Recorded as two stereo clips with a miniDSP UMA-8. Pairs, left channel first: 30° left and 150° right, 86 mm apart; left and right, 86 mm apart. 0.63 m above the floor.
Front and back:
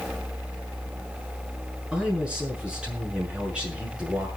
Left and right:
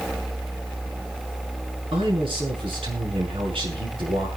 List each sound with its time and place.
1.9 s a man speaking: 70° right, 7 m